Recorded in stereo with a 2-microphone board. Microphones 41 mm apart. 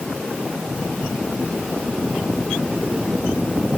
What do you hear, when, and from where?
Only background noise.